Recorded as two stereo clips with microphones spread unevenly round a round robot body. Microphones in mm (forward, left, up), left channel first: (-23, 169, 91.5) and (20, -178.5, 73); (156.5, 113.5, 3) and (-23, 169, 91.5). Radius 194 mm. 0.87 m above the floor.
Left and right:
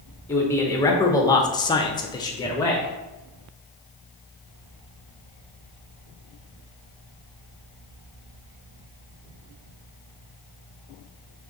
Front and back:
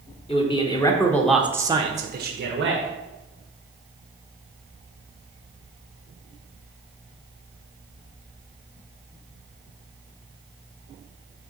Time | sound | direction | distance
0.3 | a man speaking | 15° left | 1.0 m